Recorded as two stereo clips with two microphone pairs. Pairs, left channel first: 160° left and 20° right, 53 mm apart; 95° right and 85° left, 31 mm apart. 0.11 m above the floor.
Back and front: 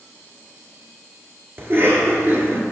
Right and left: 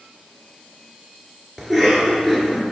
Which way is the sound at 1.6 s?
5° right.